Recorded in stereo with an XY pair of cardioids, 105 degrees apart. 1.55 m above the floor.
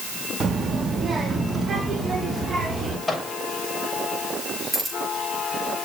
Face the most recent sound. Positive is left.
turn(degrees=-10)